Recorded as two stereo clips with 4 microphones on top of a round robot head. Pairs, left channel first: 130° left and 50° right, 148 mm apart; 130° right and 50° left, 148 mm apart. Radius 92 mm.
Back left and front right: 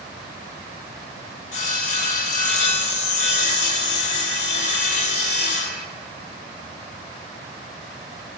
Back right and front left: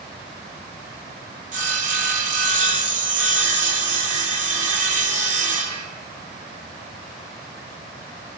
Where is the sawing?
90° left, 1.5 m.